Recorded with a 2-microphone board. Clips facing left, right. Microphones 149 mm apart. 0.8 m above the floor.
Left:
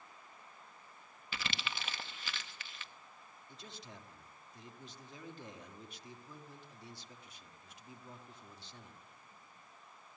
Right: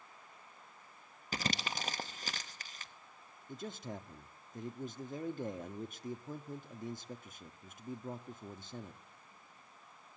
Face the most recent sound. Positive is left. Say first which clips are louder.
# right 10 dB
turn(degrees=-50)  # may be behind; listen again after turning